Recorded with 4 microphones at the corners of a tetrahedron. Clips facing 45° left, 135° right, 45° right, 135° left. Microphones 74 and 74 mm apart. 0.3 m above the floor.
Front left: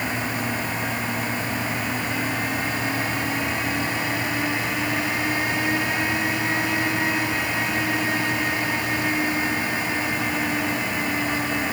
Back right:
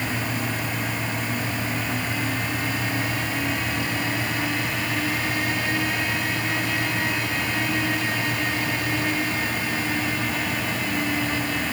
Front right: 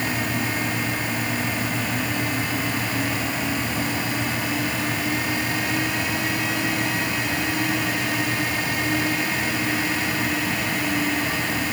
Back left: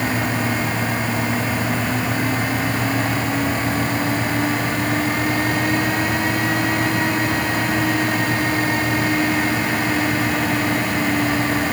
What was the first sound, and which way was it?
Only background noise.